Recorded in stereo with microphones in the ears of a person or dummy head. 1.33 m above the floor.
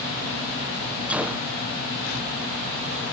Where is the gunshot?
5° right (ahead or behind).